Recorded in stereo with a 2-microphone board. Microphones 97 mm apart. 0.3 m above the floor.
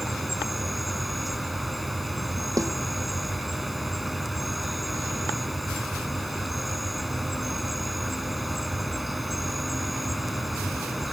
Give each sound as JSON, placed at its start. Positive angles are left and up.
{"t": 0.0, "sound": "an insect", "side_deg": 0}
{"t": 2.6, "sound": "a snare drum", "side_deg": -35}